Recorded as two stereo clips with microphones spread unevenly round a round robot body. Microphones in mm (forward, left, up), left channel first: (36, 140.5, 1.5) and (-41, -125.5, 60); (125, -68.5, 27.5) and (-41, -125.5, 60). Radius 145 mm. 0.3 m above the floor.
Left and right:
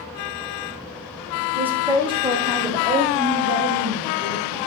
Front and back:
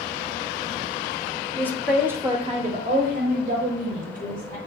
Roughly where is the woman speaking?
Ahead.